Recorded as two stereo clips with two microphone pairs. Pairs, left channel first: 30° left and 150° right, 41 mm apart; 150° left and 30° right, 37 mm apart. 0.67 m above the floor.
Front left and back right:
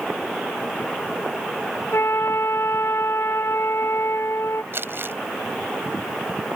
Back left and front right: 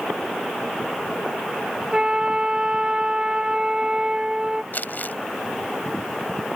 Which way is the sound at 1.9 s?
35° left.